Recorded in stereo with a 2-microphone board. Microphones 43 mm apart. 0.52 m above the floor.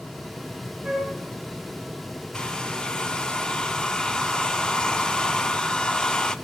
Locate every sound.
0.8 s a flute: 25° right (ahead or behind), 6 m
2.3 s a hair dryer: 15° left (ahead or behind), 0.5 m